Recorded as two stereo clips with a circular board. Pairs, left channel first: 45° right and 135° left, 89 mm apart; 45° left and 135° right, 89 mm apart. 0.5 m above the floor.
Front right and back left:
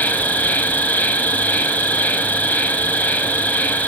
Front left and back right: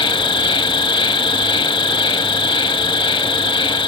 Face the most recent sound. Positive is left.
turn(degrees=25)